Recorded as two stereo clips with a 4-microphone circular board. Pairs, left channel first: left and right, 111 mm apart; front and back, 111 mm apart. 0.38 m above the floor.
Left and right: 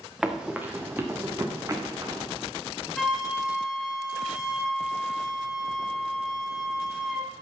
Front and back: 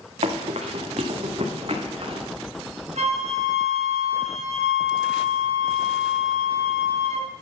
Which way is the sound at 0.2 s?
175° right.